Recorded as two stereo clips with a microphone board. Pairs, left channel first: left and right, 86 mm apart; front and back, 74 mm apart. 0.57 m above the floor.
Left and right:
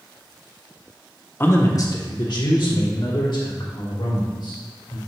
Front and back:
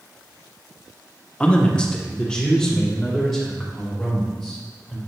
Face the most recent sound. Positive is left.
turn(degrees=85)